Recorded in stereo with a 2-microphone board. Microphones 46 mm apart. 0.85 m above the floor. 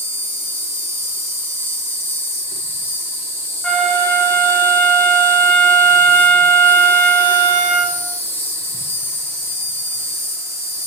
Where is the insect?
55° left (ahead or behind), 1.4 m.